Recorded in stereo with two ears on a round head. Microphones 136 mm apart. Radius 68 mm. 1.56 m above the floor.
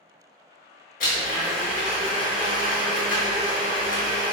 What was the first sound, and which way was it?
A blender, 55° left (ahead or behind).